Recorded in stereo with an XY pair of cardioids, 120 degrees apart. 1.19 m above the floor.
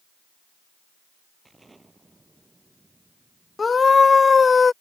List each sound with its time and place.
1.4 s an explosion: 15° right
3.6 s a scream: 25° left